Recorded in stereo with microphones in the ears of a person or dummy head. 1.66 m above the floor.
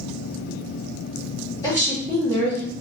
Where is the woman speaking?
15° left (ahead or behind), 2 m.